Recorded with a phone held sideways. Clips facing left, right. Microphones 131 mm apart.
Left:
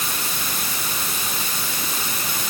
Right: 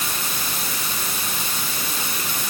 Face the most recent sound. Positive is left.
No sound to turn to.